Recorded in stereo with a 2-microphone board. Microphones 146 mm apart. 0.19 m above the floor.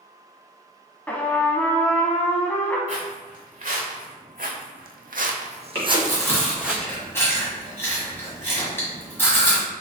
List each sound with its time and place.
1.1 s a trumpet: 10° left (ahead or behind), 0.5 m
2.9 s footsteps: 50° right (ahead or behind), 1.5 m; by 6.8 s 5° right (ahead or behind), 0.9 m
5.8 s chewing: 15° left (ahead or behind), 1.7 m